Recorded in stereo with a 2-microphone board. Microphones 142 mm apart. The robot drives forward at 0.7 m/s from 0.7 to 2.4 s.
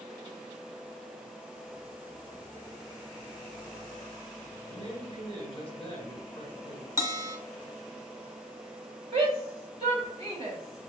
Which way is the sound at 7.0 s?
20° right (ahead or behind).